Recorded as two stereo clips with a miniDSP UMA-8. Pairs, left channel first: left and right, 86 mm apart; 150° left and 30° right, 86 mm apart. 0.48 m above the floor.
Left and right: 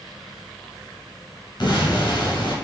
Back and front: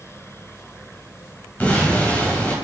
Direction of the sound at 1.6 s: 80° left.